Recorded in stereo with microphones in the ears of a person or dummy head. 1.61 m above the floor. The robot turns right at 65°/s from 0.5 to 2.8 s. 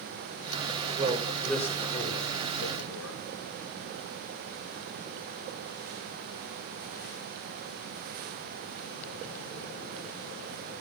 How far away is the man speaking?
About 5 m.